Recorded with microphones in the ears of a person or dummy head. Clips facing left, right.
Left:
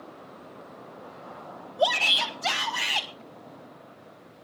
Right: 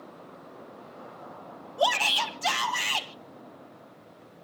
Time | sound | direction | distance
1.8 | a shout | 70° right (ahead or behind) | 2 m